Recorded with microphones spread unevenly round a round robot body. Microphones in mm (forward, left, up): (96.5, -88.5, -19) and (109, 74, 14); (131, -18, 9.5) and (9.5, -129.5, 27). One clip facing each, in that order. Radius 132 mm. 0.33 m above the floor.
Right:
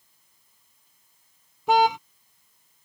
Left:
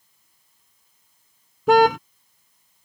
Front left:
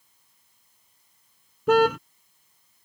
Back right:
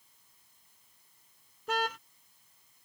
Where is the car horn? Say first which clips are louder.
Left 5 dB, front left 15 dB; 85° left.